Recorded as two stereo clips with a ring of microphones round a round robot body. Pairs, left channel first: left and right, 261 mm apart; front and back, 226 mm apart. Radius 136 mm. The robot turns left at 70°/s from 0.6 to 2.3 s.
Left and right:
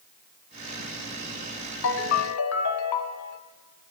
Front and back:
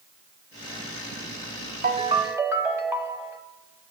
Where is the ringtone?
130° left, 1.0 m; by 3.4 s 100° left, 1.0 m.